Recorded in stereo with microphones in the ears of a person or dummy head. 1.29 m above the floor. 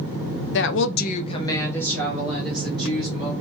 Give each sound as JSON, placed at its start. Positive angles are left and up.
{"t": 0.5, "sound": "a woman speaking", "side_deg": 60, "distance_m": 0.6}